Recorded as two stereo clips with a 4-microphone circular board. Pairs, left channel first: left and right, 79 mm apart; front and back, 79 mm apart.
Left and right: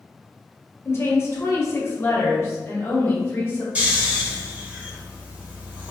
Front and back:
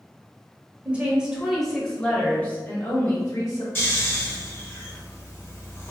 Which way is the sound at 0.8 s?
120° left.